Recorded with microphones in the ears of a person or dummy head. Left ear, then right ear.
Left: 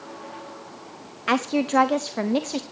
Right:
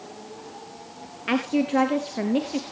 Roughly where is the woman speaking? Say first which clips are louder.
Left 2 dB; left.